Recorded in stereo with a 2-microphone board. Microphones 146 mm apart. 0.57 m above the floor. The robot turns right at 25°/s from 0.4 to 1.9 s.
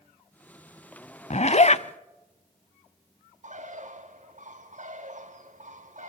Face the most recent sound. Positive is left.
turn(degrees=-60)  # may be behind; listen again after turning